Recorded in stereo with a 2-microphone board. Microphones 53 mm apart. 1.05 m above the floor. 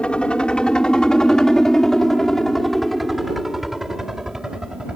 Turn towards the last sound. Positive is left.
turn(degrees=-15)  # may be behind; listen again after turning